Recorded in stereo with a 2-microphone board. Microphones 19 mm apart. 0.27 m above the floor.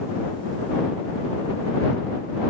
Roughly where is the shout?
I don't hear a shout.